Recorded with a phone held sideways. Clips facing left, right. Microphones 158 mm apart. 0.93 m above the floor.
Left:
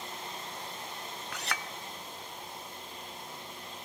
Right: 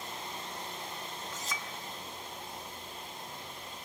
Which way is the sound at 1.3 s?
70° left (ahead or behind).